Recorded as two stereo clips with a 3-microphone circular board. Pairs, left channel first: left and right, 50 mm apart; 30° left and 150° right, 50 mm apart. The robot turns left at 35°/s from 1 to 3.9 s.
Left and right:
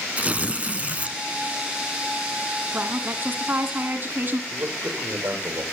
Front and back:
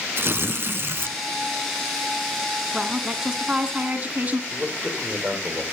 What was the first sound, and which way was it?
Tearing paper, 140° right.